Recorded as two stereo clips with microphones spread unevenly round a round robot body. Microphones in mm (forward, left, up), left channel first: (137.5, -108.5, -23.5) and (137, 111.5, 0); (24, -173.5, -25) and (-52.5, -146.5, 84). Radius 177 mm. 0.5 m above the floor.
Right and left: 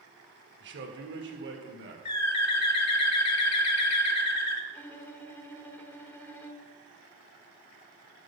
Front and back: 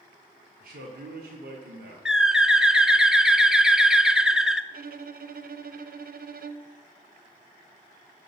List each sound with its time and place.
0.6 s a man speaking: 105° left, 1.6 m; by 1.9 s 130° left, 1.9 m
2.0 s a bird: 110° right, 0.8 m
4.7 s a violin: 160° right, 0.7 m